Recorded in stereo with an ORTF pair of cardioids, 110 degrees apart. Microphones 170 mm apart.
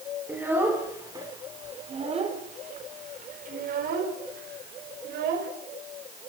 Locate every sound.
0.3 s a child speaking: 10° right, 3.5 m; by 5.5 s 75° right, 4.5 m